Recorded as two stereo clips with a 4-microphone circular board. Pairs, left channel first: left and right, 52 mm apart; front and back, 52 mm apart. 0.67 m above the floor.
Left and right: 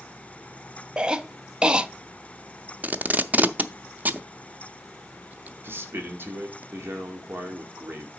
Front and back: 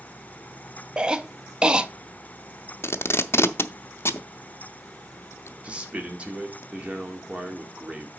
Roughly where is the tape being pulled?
Ahead right.